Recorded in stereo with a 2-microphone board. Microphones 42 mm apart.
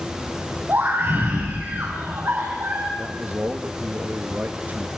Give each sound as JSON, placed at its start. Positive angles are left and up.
{"t": 0.7, "sound": "a scream", "side_deg": -50, "distance_m": 5.0}
{"t": 3.0, "sound": "a man speaking", "side_deg": -45, "distance_m": 1.4}